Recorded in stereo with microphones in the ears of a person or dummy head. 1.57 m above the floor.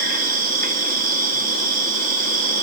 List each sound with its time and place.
0.0 s an insect: 50° right (ahead or behind), 1.9 m